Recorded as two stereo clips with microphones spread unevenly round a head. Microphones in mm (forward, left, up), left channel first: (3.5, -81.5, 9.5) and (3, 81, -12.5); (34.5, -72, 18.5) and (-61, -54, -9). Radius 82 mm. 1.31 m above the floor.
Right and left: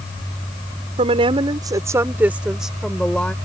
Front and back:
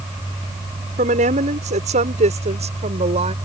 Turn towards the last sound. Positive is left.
turn(degrees=-170)